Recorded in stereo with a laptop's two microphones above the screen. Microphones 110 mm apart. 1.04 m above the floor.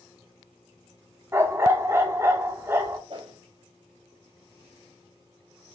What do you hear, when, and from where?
1.3 s a dog barking: 25° right (ahead or behind), 0.6 m
3.1 s a whoosh: 50° right (ahead or behind), 1.8 m